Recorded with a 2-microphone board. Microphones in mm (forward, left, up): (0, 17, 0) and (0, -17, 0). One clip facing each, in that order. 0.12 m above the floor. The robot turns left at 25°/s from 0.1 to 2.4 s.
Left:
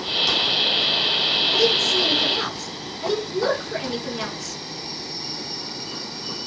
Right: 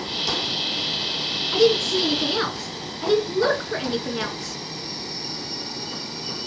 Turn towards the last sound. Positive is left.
turn(degrees=-25)  # may be behind; listen again after turning